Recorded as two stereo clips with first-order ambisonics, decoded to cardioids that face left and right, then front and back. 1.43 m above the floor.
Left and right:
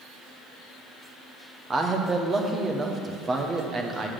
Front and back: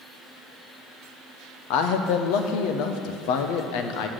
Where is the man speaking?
15° right, 0.8 m.